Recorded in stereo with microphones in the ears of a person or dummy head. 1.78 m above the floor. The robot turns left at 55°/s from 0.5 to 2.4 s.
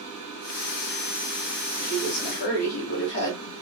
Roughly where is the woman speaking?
Behind left.